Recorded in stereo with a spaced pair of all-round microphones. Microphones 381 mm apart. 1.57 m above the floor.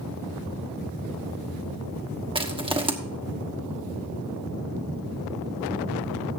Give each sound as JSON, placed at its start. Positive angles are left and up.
{"t": 2.4, "sound": "crushing", "side_deg": -15, "distance_m": 1.2}